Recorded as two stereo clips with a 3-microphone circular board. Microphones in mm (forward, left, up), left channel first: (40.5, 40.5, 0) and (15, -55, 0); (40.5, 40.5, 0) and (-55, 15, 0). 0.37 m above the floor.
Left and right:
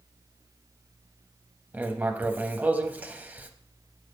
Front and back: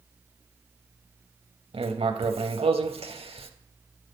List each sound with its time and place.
1.7 s writing: 175° right, 0.6 m